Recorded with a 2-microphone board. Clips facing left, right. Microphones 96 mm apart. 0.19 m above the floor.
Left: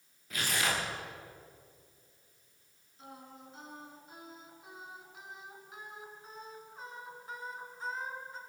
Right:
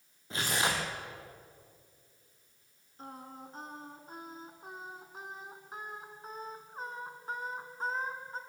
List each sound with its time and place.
0.3 s tearing paper: 30° right (ahead or behind), 4.5 m
3.0 s singing: 45° right (ahead or behind), 2 m